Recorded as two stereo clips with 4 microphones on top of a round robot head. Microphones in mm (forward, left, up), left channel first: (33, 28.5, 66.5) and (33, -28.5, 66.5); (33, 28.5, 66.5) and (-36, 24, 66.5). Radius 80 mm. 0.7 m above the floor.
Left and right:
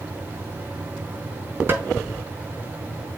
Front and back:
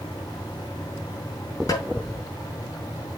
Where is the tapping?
35° right, 4.5 m.